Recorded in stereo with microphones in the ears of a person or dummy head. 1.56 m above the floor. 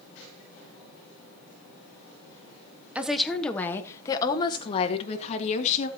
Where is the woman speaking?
5° right (ahead or behind), 1.2 m; by 5.9 s 45° left (ahead or behind), 2 m.